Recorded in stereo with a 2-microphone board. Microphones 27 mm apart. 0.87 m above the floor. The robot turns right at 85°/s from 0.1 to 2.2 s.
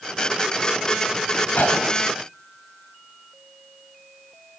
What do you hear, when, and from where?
1.6 s a gunshot: 100° left, 5 m; by 2.0 s 135° left, 5 m